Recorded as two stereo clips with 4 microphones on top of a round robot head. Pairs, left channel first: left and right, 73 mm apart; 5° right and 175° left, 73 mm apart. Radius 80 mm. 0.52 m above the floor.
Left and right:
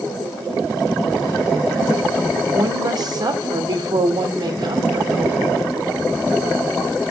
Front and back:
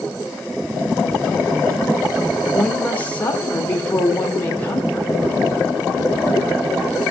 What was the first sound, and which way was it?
A woman speaking, 75° right.